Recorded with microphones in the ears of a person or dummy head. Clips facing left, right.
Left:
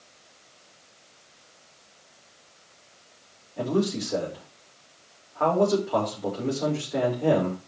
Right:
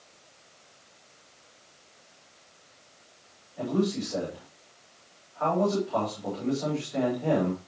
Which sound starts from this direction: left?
A man speaking, at 3.6 s.